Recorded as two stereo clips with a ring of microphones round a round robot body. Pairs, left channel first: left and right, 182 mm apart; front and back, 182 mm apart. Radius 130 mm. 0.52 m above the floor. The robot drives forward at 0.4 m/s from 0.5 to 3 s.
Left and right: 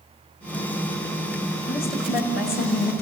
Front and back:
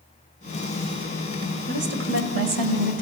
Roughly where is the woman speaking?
Behind.